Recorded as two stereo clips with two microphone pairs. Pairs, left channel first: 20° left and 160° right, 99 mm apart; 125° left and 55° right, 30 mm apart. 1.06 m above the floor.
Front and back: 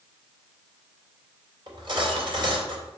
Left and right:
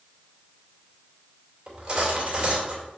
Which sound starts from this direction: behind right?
Cutlery clinking, at 1.7 s.